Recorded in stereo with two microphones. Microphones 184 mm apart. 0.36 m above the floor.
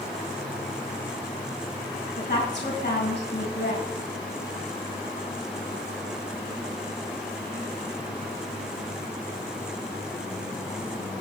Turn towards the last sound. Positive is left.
turn(degrees=65)  # may be behind; listen again after turning